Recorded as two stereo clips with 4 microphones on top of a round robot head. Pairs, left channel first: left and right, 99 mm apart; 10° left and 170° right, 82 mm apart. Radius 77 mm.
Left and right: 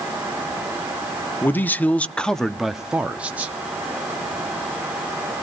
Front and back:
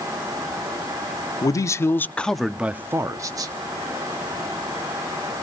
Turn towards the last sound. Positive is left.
turn(degrees=-160)